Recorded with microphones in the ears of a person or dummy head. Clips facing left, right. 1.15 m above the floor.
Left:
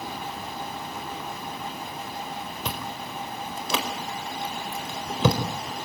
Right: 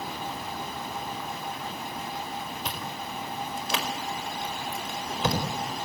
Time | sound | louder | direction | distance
2.6 | chewing | left 2 dB | 80° left | 4 m